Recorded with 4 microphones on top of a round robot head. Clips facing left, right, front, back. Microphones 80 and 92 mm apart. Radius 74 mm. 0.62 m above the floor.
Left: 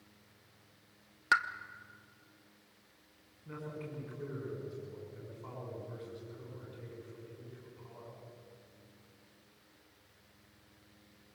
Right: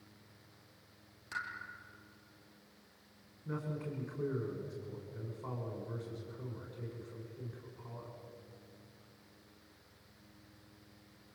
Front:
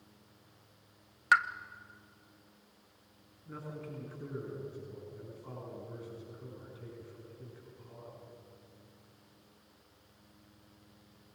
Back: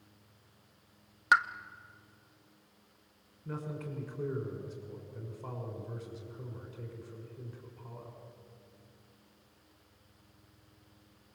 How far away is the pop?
About 1.2 m.